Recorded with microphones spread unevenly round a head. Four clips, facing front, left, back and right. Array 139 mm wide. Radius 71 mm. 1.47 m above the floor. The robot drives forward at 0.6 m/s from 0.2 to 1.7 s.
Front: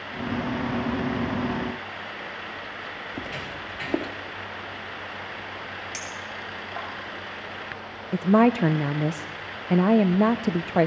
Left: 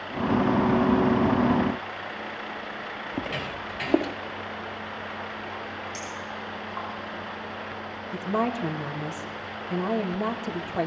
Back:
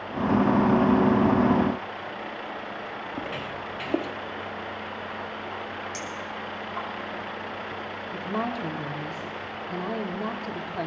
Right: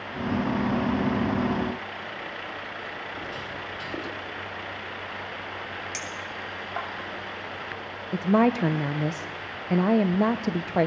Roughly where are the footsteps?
Left.